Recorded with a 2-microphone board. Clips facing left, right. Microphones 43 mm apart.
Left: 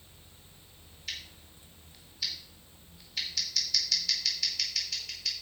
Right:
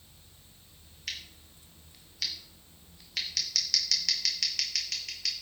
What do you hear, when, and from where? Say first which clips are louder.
1.1 s scissors: right 1 dB; 75° right (ahead or behind), 2.5 m